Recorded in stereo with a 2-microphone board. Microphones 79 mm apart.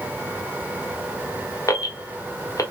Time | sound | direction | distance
1.7 | an alarm | 45° left (ahead or behind) | 1.1 m